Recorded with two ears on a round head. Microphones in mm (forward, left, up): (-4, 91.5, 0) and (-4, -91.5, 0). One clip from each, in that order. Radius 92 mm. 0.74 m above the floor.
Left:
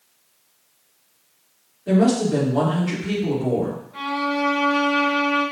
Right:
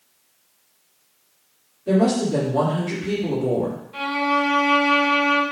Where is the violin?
65° right (ahead or behind), 2.5 m.